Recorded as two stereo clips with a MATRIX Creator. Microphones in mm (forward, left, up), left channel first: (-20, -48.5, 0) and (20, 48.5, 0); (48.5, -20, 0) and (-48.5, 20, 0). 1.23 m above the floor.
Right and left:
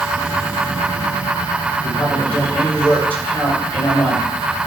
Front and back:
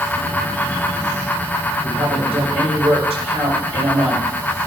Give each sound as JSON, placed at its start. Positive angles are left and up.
{"t": 1.8, "sound": "a woman speaking", "azimuth_deg": 175, "distance_m": 5.0}